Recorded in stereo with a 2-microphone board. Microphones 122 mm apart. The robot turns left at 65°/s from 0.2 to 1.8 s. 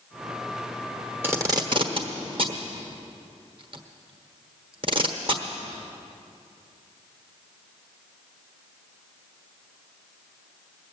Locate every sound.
1.2 s tape being pulled: 15° right (ahead or behind), 1.2 m; by 5.4 s 45° right (ahead or behind), 1.2 m